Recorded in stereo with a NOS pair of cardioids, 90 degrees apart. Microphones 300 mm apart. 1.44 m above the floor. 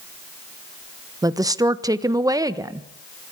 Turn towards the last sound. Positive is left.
turn(degrees=-10)